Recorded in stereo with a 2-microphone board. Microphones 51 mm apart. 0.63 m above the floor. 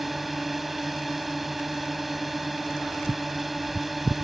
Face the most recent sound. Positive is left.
turn(degrees=-5)  # may be behind; listen again after turning